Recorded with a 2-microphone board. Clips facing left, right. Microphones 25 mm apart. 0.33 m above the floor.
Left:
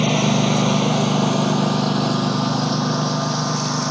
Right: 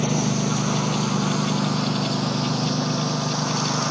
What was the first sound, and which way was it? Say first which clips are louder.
A lawn mower: left 5 dB; 65° left (ahead or behind).